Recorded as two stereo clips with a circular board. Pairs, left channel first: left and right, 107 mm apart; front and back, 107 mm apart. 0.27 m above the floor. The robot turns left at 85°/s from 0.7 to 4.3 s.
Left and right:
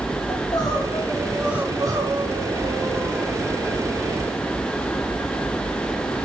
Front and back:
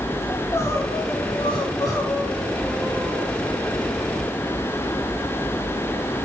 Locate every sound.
0.3 s crying: 55° left, 2 m; by 3.3 s 170° right, 2 m